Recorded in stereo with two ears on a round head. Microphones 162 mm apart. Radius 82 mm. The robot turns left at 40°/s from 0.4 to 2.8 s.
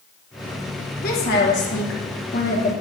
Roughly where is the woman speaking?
Behind left.